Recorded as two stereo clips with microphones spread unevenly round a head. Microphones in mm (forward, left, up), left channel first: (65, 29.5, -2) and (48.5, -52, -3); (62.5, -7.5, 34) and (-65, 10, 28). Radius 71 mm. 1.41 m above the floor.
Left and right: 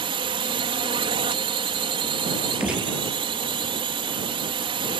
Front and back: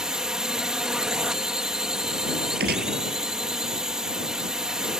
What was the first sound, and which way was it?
A drone, 105° right.